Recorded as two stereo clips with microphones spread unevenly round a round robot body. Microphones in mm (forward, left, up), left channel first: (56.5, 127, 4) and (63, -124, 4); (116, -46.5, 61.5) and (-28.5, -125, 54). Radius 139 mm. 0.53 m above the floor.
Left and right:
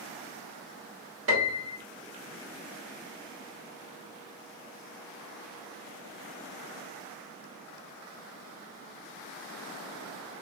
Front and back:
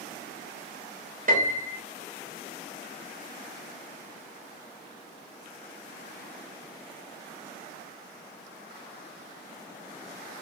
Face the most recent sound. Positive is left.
turn(degrees=-125)